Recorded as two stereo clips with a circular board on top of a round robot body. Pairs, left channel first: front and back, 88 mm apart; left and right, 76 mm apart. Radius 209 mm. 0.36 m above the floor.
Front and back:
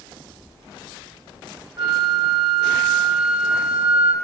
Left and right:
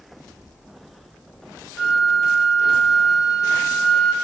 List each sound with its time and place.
1.8 s a flute: straight behind, 1.9 m